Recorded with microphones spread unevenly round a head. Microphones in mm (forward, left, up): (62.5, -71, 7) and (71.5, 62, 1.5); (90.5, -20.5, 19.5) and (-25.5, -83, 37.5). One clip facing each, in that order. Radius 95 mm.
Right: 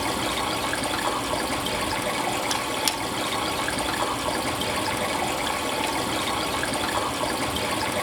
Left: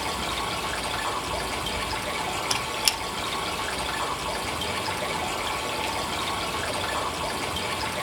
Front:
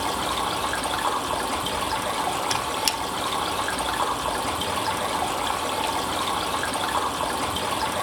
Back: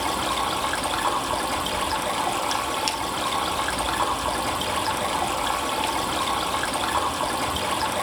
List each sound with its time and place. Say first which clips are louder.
0.0 s running water: right 4 dB, back 1 dB; 65° right, 2 m
2.5 s a squeak: right 3 dB, back 1 dB; 5° left, 1.2 m